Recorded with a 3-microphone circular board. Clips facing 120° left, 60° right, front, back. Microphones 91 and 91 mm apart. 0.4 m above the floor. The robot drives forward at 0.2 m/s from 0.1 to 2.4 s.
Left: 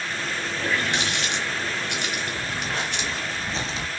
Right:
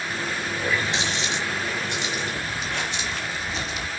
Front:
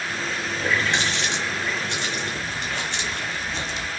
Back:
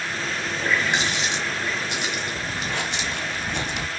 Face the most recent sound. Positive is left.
turn(degrees=175)